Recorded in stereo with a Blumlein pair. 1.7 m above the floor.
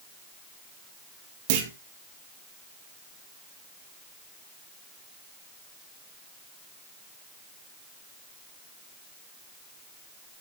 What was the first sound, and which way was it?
A clunk, 55° right.